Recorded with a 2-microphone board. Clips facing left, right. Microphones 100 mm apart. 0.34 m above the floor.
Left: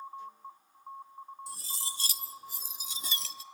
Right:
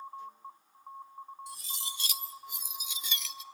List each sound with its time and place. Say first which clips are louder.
1.5 s cutlery clinking: even; 35° left (ahead or behind), 0.6 m